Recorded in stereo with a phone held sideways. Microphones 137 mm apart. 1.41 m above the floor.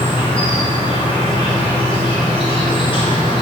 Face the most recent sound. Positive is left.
turn(degrees=35)  # may be behind; listen again after turning